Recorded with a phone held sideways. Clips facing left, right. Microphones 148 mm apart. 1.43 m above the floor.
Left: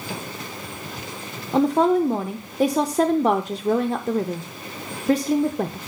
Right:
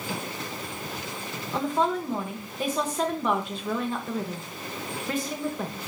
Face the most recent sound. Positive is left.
turn(degrees=40)  # may be behind; listen again after turning